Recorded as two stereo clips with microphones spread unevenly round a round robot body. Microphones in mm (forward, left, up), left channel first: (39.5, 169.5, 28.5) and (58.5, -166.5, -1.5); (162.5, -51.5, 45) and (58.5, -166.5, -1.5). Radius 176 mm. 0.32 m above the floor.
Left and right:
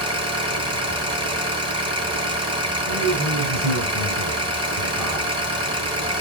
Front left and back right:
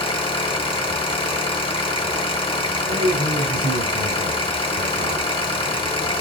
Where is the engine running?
15° right, 2.5 m.